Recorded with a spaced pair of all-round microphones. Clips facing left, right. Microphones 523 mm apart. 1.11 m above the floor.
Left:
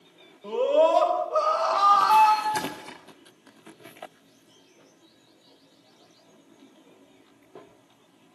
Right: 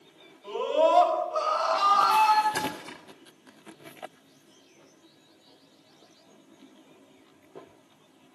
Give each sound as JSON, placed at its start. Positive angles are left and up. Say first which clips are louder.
{"t": 0.4, "sound": "a scream", "louder": "left 4 dB", "side_deg": 80, "distance_m": 5.5}
{"t": 2.5, "sound": "a splash", "louder": "even", "side_deg": 0, "distance_m": 4.0}